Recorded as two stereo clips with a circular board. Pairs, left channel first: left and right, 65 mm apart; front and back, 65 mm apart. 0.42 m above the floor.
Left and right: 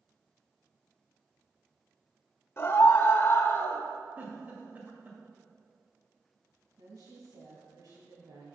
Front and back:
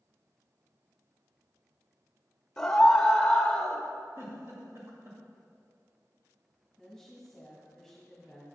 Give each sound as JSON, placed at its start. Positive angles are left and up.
{"t": 2.6, "sound": "a scream", "azimuth_deg": 80, "distance_m": 1.4}
{"t": 4.2, "sound": "a giggle", "azimuth_deg": -145, "distance_m": 2.0}
{"t": 6.8, "sound": "a woman speaking", "azimuth_deg": -85, "distance_m": 2.5}